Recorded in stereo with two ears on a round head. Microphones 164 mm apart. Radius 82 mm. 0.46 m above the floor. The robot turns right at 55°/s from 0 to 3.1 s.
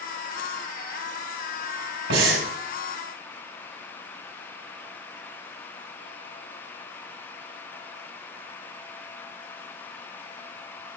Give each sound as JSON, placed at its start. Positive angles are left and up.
{"t": 2.1, "sound": "breathing", "side_deg": -70, "distance_m": 3.0}